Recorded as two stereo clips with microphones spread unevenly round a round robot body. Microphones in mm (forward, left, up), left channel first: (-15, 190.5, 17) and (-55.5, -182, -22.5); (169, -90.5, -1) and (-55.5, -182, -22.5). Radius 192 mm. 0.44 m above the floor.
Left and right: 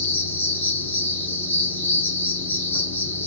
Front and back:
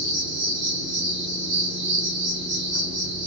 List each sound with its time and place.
0.0 s an insect: 170° left, 1.4 m